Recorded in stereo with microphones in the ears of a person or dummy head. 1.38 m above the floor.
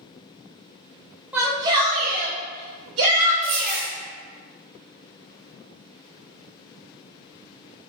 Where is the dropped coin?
20° right (ahead or behind), 1.0 m.